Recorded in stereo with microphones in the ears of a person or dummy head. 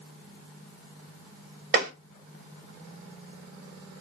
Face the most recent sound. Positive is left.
turn(degrees=-45)  # may be behind; listen again after turning